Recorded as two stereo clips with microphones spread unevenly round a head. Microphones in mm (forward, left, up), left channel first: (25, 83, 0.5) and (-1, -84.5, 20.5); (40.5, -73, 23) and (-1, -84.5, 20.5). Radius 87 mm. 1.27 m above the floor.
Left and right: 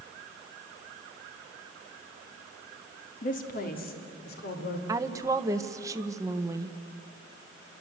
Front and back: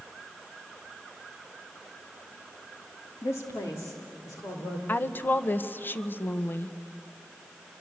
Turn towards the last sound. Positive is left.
turn(degrees=-25)